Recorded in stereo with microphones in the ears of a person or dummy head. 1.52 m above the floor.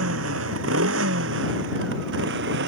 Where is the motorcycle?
85° right; by 2.7 s 65° right (ahead or behind).